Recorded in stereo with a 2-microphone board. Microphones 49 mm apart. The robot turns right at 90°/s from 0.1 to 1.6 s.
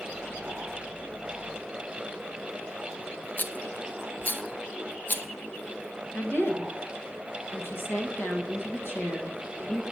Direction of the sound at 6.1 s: 55° left (ahead or behind).